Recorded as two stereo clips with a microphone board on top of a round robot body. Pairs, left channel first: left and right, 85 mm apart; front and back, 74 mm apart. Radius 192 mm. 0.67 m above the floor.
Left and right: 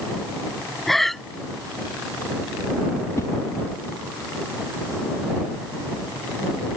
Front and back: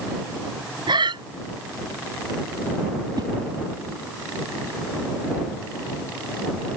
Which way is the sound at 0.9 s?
Straight behind.